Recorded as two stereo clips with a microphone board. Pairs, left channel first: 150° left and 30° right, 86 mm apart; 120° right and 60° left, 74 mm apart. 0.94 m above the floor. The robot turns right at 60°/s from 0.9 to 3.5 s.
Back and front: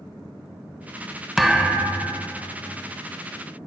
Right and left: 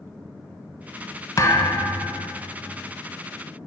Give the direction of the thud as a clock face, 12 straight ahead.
4 o'clock.